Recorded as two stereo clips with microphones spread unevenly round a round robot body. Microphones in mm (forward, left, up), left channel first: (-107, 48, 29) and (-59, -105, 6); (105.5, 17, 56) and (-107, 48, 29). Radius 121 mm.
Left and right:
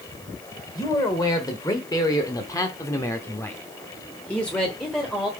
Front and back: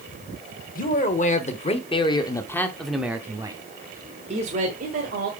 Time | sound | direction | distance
0.8 | a man speaking | 35° left | 1.5 m